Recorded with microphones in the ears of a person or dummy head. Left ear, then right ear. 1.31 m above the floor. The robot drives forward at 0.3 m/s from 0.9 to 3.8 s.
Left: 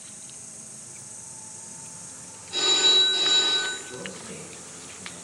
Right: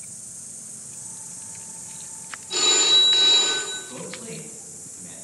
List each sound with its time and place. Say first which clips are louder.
0.0 s an insect: right 2 dB; 75° right (ahead or behind), 1.3 m; by 5.2 s 45° right (ahead or behind), 1.7 m
2.5 s a phone ringing: right 2 dB; 80° right, 0.7 m; by 3.8 s 60° right (ahead or behind), 0.8 m
3.9 s a man speaking: right 1 dB; 80° right, 0.8 m